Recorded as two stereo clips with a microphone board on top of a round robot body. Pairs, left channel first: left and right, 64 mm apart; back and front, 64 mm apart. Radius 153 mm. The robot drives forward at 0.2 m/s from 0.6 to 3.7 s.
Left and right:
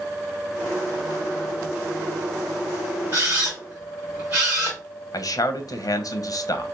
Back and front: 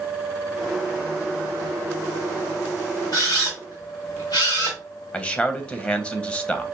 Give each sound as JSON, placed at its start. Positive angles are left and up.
{"t": 3.1, "sound": "a camera shutter", "azimuth_deg": -150, "distance_m": 0.7}
{"t": 5.1, "sound": "a man speaking", "azimuth_deg": 110, "distance_m": 0.8}